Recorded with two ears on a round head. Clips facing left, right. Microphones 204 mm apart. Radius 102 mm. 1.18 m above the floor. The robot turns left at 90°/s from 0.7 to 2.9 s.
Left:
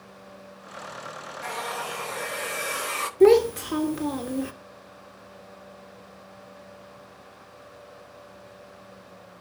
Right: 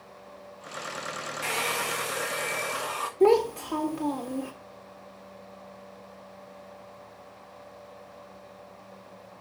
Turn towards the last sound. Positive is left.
turn(degrees=20)  # may be behind; listen again after turning